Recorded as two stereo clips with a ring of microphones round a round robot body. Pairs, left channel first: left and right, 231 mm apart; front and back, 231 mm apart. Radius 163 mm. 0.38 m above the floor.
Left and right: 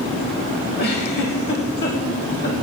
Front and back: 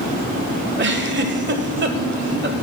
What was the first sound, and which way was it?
A giggle, 145° left.